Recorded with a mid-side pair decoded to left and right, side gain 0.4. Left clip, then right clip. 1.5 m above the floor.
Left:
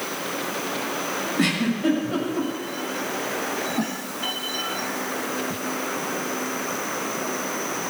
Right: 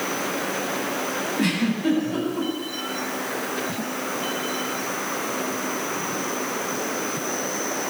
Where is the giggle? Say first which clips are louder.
Left 4 dB; 70° left, 7.5 m.